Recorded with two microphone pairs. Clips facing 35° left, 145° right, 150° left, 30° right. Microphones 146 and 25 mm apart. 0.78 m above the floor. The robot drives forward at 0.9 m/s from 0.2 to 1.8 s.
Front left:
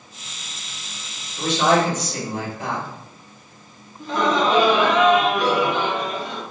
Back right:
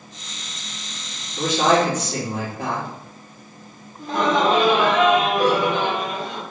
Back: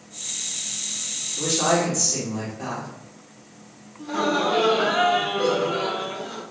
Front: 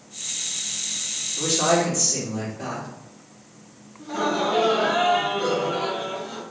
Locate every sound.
1.4 s a woman speaking: 115° right, 2 m; by 2.9 s 125° right, 2 m
4.0 s laughter: straight behind, 1.9 m